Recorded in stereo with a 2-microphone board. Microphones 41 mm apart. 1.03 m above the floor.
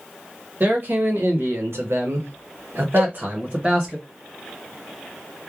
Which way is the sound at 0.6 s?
50° right (ahead or behind).